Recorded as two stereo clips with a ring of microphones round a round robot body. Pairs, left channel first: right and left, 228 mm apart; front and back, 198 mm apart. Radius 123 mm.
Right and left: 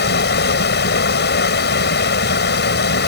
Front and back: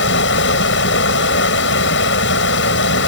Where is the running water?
45° right.